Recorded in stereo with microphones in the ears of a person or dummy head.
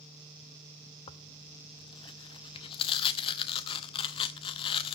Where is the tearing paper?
30° left (ahead or behind), 0.7 m.